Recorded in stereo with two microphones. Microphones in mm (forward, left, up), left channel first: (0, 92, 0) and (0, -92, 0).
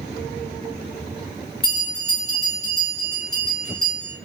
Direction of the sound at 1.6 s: 25° right (ahead or behind).